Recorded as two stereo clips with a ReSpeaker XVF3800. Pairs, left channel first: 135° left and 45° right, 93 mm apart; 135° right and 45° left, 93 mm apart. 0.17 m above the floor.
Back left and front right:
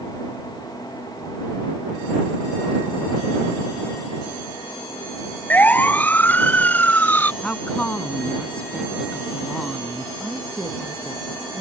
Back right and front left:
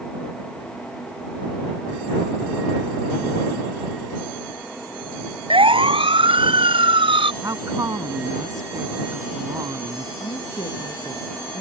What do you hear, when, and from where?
5.5 s a siren: 65° left
7.4 s a woman speaking: 65° left
10.2 s a woman speaking: 125° right